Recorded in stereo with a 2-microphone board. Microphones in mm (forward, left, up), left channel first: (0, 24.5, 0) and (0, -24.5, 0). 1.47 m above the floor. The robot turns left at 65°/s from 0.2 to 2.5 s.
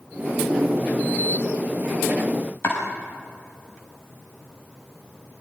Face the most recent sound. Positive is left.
turn(degrees=55)  # may be behind; listen again after turning